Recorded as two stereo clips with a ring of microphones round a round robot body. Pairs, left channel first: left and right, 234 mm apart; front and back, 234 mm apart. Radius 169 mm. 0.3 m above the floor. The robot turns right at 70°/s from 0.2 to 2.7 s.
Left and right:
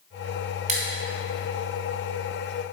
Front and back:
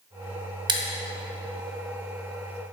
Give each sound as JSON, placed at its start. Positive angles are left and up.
{"t": 0.7, "sound": "scissors", "azimuth_deg": -125, "distance_m": 0.9}